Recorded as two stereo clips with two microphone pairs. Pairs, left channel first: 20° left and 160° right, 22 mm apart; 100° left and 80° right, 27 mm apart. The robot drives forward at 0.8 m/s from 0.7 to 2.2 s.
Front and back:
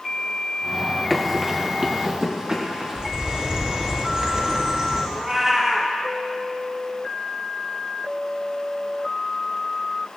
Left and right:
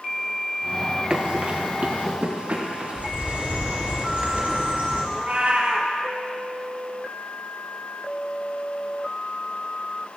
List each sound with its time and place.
1.1 s running footsteps: 55° right, 1.3 m; by 3.1 s 100° right, 4 m
3.0 s a bird: 110° right, 5.5 m
5.1 s a cat meowing: 85° right, 2 m